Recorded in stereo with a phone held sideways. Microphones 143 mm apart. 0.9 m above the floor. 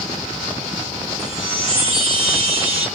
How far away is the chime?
About 1.0 m.